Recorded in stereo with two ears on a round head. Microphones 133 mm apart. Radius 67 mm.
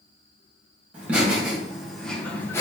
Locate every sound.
0.9 s laughter: 10° right (ahead or behind), 1.5 m; by 2.6 s 15° left (ahead or behind), 0.7 m